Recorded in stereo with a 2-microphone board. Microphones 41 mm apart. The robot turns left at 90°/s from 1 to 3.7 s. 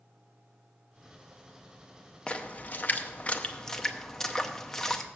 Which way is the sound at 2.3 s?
25° left (ahead or behind).